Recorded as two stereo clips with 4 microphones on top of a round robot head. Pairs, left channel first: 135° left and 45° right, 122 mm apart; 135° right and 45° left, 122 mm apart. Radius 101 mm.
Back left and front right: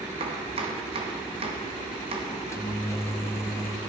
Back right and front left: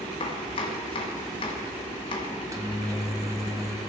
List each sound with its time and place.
0.2 s chopping: 85° right, 1.1 m
2.3 s a microwave: 90° left, 1.0 m